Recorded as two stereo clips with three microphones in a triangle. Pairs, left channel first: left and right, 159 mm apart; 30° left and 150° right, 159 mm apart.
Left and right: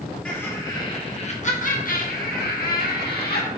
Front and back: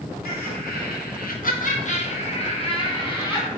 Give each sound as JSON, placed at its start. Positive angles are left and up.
{"t": 0.2, "sound": "laughter", "azimuth_deg": 10, "distance_m": 1.1}